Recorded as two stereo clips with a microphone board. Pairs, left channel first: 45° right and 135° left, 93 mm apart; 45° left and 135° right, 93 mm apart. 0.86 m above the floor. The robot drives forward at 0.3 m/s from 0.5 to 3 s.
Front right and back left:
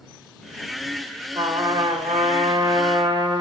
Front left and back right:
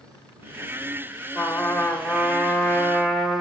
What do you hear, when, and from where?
1.4 s a trumpet: 115° left, 0.9 m; by 3.4 s 140° left, 1.2 m